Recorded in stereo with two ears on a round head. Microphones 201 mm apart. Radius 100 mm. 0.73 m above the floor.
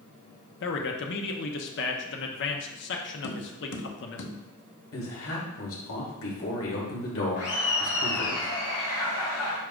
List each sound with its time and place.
0.6 s a man speaking: 55° left (ahead or behind), 0.8 m
3.2 s tapping: 55° left (ahead or behind), 0.9 m
4.9 s a man speaking: 65° left (ahead or behind), 2.5 m
7.4 s laughter: 70° left (ahead or behind), 1.4 m